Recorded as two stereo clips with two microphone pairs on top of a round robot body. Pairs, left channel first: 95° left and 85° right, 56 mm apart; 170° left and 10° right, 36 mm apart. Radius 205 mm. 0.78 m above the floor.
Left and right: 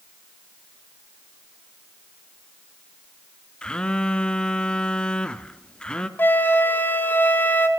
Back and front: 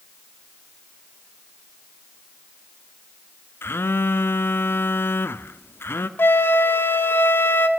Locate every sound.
3.6 s a phone buzzing: 170° left, 1.1 m
6.2 s a flute: 150° left, 1.5 m